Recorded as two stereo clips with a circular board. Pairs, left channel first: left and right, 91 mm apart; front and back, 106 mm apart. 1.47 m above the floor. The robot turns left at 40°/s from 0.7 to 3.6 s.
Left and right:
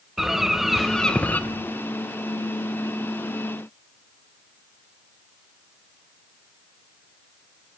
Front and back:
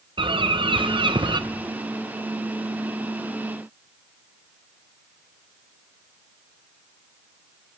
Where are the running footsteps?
No running footsteps in this recording.